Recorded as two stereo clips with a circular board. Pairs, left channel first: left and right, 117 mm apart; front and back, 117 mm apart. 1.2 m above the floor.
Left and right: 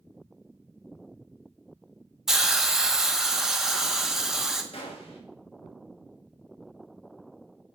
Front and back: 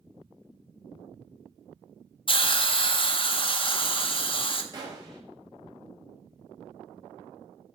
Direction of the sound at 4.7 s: 125° left.